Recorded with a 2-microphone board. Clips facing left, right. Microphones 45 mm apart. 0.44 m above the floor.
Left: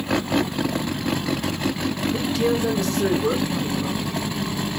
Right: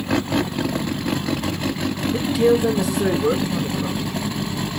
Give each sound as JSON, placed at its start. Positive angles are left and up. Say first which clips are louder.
{"t": 2.1, "sound": "a man speaking", "louder": "right 7 dB", "side_deg": -10, "distance_m": 0.9}